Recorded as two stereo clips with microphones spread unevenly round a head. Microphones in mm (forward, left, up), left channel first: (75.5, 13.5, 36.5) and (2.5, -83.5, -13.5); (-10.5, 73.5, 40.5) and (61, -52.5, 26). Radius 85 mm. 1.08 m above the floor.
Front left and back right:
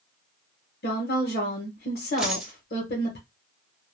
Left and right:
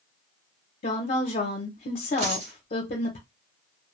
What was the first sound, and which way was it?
A woman speaking, 85° left.